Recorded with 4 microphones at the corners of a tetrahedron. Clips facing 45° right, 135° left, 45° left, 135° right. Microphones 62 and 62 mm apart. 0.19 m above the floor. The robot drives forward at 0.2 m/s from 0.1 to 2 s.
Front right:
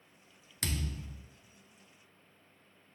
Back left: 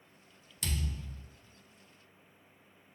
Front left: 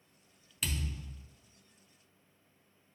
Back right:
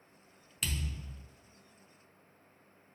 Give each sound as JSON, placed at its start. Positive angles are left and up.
{"t": 0.6, "sound": "a thud", "azimuth_deg": -40, "distance_m": 0.5}